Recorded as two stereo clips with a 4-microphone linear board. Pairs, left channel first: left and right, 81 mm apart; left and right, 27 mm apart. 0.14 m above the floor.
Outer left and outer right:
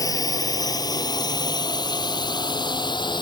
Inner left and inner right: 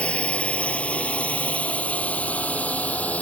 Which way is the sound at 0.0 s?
45° left (ahead or behind).